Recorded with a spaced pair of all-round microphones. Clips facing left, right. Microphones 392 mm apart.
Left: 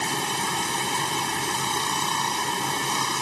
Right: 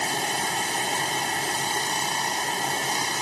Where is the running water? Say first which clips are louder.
Even; 15° left (ahead or behind).